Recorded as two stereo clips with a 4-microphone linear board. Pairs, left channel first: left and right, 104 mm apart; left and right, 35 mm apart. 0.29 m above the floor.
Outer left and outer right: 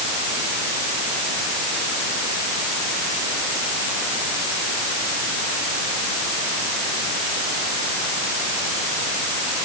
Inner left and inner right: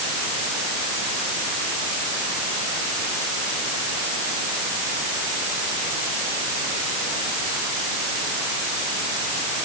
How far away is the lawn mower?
No lawn mower in this recording.